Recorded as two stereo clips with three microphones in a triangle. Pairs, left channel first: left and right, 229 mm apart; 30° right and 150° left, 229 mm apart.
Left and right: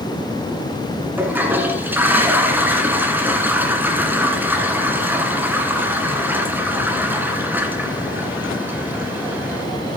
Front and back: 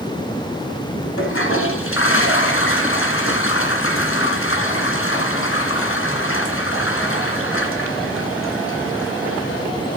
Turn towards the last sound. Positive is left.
turn(degrees=-10)